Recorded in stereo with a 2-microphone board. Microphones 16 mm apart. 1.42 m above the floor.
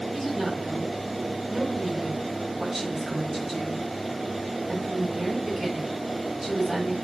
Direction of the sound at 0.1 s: 5° right (ahead or behind).